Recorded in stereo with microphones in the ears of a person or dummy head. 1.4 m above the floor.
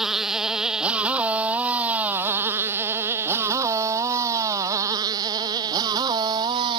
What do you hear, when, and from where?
0.0 s a motorcycle: centre (ahead or behind); by 6.8 s 25° right (ahead or behind)